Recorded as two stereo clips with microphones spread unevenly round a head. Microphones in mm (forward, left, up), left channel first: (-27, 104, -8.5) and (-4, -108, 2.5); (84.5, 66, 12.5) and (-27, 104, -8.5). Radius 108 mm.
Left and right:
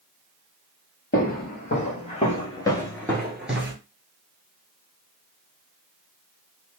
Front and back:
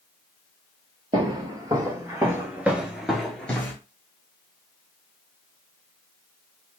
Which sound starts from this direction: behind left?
Footsteps, at 1.1 s.